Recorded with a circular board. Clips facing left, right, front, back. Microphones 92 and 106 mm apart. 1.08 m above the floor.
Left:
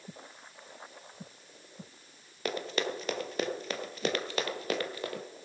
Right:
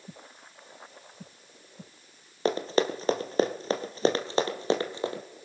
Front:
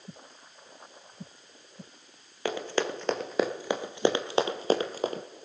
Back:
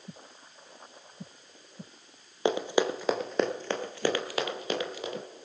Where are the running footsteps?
125° right, 1.3 m; by 5.2 s 30° right, 1.7 m.